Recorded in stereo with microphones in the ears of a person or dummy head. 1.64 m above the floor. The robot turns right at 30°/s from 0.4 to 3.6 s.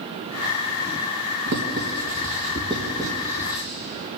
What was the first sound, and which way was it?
Writing, 55° right (ahead or behind).